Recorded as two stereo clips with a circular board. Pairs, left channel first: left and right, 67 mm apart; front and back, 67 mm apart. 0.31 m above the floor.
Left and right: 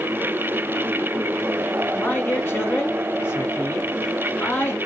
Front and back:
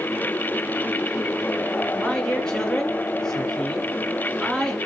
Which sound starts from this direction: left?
A man speaking, at 2.0 s.